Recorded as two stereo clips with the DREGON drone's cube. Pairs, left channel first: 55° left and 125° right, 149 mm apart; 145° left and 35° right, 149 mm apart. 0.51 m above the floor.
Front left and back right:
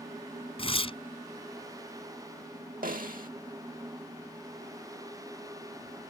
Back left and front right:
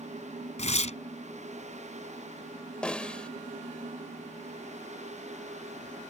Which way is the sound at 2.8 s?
130° right.